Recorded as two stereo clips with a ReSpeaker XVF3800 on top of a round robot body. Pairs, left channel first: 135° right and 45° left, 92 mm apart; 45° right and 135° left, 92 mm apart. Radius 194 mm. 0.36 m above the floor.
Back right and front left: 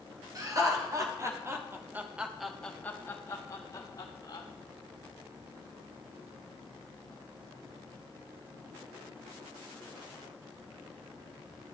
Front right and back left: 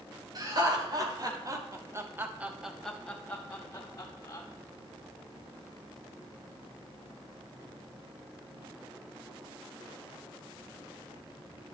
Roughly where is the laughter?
Left.